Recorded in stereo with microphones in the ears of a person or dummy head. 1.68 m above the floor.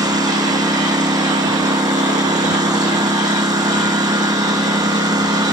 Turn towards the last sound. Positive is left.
turn(degrees=-20)  # may be behind; listen again after turning